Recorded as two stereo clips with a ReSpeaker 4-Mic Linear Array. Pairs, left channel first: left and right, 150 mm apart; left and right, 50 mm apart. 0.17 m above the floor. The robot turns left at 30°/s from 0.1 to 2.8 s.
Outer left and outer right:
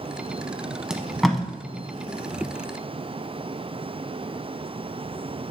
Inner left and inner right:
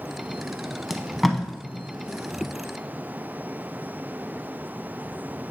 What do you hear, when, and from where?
0.9 s tape being pulled: 5° right (ahead or behind), 0.7 m; by 1.4 s centre (ahead or behind), 0.7 m